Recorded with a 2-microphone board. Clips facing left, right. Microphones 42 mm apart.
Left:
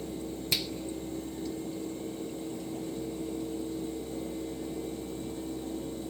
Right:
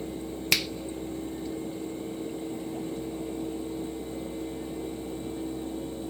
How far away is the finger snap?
About 0.5 m.